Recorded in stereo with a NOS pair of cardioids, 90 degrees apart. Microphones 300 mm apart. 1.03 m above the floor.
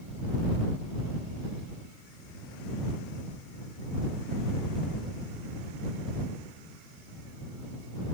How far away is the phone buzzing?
I don't hear a phone buzzing.